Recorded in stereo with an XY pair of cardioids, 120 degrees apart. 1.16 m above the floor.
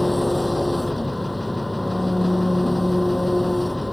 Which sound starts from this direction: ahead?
An engine running, at 0.0 s.